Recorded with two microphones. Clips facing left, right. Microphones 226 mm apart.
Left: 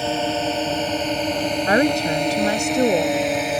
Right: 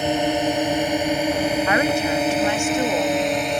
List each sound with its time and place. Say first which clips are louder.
0.0 s a drone: right 2 dB; 15° right (ahead or behind); by 3.6 s 5° left (ahead or behind)
1.7 s a woman speaking: left 2 dB; 40° left (ahead or behind)